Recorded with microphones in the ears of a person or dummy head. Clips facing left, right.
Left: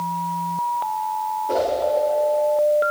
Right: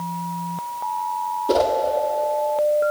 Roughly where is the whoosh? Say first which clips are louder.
Right 3 dB; right.